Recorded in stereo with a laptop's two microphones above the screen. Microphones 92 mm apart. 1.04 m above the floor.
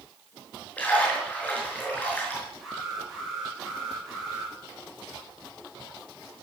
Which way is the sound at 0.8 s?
20° left (ahead or behind).